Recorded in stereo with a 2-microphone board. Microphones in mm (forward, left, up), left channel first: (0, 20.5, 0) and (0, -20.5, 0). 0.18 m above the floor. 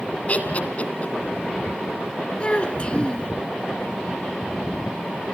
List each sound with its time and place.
0.3 s laughter: 40° left (ahead or behind), 2 m
2.4 s a child speaking: 30° left (ahead or behind), 1.3 m